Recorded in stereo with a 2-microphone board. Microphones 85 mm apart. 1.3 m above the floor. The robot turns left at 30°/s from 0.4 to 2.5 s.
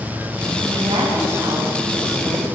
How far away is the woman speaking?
About 6 m.